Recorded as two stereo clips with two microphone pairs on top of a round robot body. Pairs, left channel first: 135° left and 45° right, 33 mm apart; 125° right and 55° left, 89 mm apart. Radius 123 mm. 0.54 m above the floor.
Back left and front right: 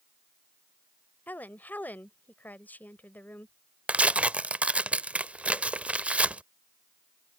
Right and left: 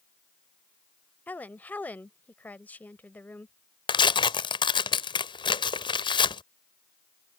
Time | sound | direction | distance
1.3 | a woman speaking | 165° left | ?
3.9 | tearing paper | 90° right | ?